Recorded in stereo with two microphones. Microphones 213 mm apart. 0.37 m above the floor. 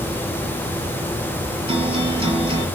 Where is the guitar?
30° right (ahead or behind), 6 m.